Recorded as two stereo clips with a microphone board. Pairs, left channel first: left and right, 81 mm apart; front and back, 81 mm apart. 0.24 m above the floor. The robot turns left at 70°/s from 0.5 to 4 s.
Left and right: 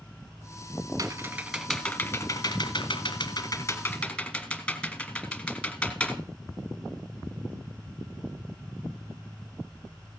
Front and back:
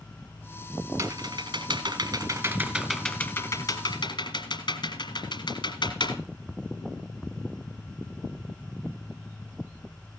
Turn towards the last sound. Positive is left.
turn(degrees=10)